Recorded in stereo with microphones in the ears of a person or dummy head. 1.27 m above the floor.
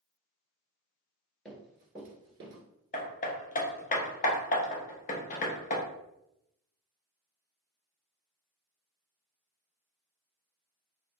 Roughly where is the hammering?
Left.